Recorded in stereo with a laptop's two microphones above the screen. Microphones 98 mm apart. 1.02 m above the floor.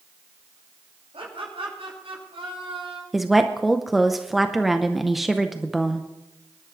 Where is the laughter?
80° right, 6 m.